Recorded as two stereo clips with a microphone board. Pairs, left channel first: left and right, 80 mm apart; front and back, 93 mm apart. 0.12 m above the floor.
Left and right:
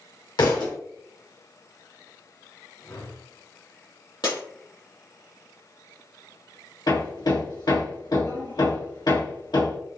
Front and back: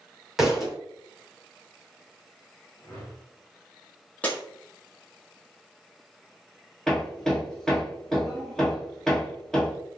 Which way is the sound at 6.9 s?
85° left.